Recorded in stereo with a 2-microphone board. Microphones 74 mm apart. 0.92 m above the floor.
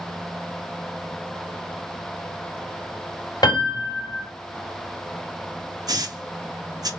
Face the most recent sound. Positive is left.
turn(degrees=-60)  # may be behind; listen again after turning